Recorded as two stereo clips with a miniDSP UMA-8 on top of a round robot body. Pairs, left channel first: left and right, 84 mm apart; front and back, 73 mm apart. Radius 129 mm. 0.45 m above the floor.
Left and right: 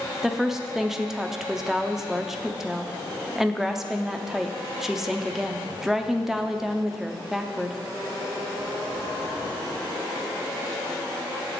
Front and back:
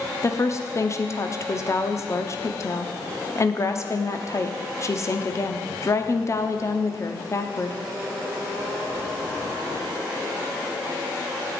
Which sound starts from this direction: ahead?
A woman speaking, at 0.2 s.